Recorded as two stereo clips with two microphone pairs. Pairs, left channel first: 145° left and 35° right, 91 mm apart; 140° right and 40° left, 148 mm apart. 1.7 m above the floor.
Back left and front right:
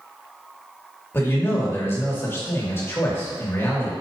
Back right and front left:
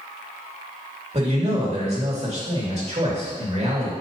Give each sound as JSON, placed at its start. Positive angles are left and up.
{"t": 1.1, "sound": "a man speaking", "azimuth_deg": 85, "distance_m": 2.5}